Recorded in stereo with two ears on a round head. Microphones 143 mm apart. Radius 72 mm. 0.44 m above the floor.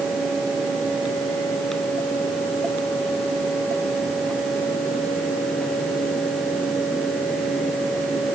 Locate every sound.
Only background noise.